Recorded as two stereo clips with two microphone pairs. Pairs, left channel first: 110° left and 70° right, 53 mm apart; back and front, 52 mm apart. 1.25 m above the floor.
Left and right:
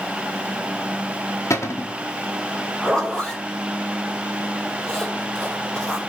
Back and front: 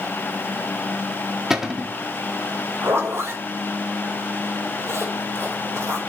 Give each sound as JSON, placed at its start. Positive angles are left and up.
{"t": 1.5, "sound": "a cupboard door", "azimuth_deg": 80, "distance_m": 0.9}
{"t": 2.8, "sound": "a zipper", "azimuth_deg": 30, "distance_m": 3.0}